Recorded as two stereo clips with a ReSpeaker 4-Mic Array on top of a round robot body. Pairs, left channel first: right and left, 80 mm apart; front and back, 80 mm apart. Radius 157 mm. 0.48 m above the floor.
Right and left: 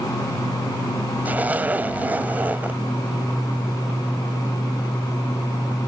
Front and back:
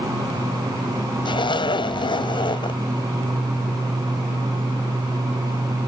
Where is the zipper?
20° left.